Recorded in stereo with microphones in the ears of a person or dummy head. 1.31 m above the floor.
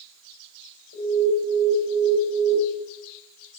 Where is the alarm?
60° left (ahead or behind), 4 m.